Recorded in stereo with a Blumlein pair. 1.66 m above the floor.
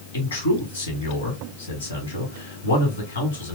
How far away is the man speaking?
About 2.5 m.